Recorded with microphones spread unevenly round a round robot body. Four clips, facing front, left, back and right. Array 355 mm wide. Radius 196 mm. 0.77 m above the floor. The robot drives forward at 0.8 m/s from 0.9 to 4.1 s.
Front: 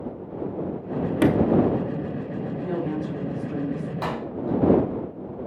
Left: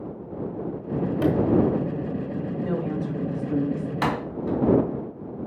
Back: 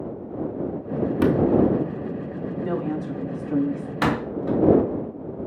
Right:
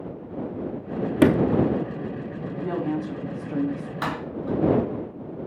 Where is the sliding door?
100° right, 1.1 m; by 1.6 s 115° right, 1.2 m.